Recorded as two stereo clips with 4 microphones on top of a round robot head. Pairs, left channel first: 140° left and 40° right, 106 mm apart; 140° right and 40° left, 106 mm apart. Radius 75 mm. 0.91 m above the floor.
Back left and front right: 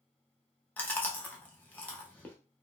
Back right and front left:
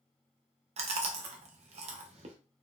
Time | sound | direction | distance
0.8 | chewing | 65° left | 0.7 m